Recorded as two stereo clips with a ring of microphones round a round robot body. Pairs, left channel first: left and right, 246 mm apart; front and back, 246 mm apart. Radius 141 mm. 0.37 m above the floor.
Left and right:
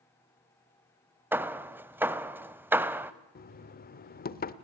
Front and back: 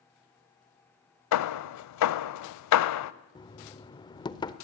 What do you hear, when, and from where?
1.3 s hammering: 10° right, 0.8 m
3.4 s knocking: 65° left, 1.0 m